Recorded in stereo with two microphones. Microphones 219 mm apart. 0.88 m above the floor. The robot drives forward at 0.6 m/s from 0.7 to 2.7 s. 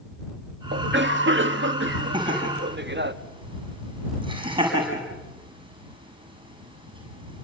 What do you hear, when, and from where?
0.7 s a cough: 55° right (ahead or behind), 1.6 m
2.1 s laughter: 20° right (ahead or behind), 6 m